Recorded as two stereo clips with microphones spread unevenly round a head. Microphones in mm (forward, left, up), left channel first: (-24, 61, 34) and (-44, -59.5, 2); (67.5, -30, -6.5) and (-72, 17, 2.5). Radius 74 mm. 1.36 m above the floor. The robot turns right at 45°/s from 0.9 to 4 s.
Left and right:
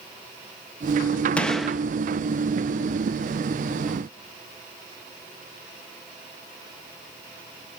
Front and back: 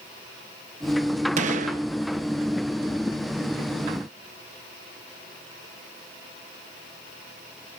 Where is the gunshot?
145° left, 0.8 m; by 1.8 s 165° left, 0.8 m.